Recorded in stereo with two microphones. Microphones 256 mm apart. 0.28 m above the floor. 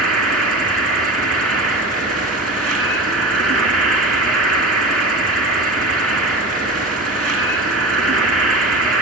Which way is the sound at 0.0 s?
60° right (ahead or behind).